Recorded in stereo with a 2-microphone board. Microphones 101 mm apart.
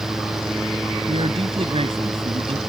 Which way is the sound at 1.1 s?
70° right (ahead or behind).